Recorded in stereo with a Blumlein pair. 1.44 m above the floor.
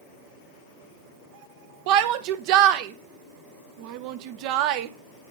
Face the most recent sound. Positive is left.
turn(degrees=-45)